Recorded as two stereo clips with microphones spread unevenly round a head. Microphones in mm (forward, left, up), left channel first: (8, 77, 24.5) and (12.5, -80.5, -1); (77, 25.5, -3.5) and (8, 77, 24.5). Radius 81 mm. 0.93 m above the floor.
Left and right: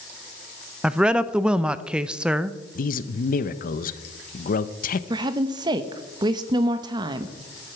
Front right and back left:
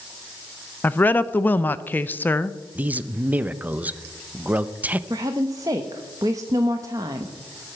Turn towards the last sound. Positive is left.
turn(degrees=-145)